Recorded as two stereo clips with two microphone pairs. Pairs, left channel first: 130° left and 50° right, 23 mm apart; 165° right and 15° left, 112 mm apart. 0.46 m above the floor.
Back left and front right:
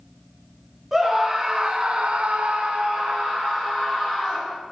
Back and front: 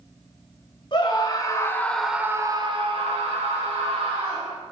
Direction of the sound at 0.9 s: 125° right.